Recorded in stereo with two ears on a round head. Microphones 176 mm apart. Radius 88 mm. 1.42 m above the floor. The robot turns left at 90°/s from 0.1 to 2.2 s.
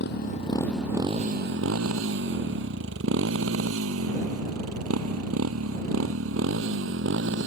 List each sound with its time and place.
0.0 s a motorcycle: 55° left (ahead or behind); by 7.5 s 60° right (ahead or behind)